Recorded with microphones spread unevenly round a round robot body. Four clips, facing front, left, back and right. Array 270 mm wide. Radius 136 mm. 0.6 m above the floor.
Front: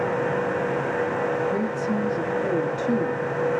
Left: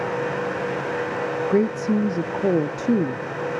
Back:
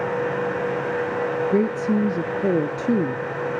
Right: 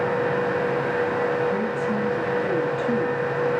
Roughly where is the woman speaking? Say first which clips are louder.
Left 4 dB, back 4 dB; behind left.